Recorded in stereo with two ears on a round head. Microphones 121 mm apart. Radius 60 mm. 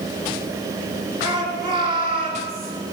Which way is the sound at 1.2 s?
35° right (ahead or behind).